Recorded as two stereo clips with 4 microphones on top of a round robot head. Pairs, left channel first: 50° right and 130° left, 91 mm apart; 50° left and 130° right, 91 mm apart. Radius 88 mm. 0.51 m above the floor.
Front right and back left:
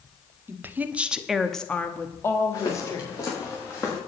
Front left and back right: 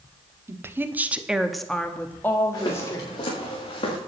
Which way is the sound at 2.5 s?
Straight ahead.